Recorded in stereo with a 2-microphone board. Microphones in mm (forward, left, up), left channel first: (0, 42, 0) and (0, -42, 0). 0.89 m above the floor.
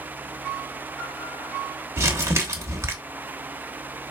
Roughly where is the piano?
Centre.